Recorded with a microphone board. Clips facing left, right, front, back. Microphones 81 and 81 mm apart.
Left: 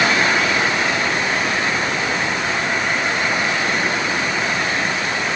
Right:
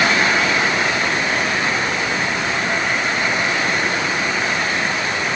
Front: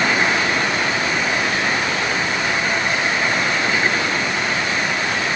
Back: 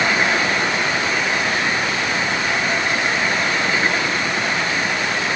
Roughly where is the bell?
No bell in this recording.